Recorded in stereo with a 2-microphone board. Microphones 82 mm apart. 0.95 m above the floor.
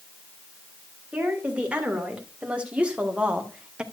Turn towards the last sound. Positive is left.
turn(degrees=-15)  # may be behind; listen again after turning